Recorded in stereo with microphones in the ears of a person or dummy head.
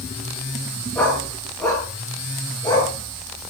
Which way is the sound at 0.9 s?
15° left (ahead or behind).